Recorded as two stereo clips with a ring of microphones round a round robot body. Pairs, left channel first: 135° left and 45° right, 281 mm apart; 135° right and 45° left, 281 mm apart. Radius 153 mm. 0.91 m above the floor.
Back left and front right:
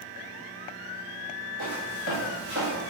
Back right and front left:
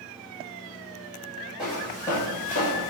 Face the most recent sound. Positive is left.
turn(degrees=-115)